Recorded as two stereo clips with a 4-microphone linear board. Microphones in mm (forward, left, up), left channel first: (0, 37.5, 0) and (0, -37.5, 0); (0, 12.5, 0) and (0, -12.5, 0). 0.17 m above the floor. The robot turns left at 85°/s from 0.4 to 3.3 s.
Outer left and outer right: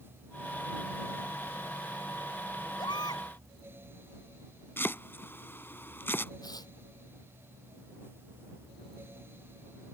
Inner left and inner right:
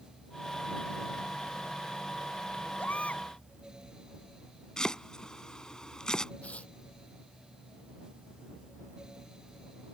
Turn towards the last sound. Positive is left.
turn(degrees=60)  # may be behind; listen again after turning